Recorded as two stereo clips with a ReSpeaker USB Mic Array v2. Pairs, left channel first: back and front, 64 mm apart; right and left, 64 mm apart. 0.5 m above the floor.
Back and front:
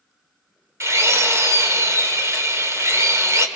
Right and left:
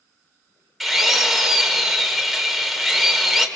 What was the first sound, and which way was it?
A drill, straight ahead.